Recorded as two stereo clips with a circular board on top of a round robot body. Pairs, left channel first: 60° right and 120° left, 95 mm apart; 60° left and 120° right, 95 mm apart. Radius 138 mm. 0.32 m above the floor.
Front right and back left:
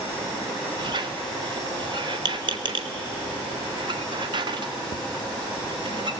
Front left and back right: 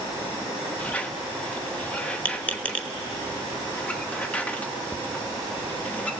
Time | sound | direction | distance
0.8 | a squeak | 135° left | 1.2 m